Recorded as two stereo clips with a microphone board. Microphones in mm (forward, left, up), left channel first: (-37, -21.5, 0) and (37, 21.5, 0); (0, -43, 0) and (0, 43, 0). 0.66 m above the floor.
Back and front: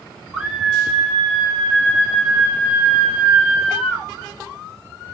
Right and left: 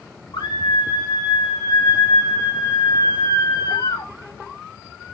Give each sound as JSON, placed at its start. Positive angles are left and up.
{"t": 0.3, "sound": "a scream", "azimuth_deg": -65, "distance_m": 9.0}